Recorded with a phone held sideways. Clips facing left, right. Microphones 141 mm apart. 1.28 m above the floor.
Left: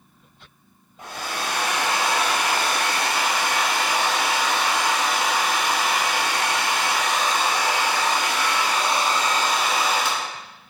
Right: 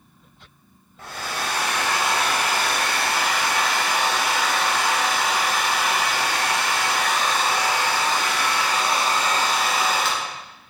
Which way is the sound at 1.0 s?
15° left (ahead or behind).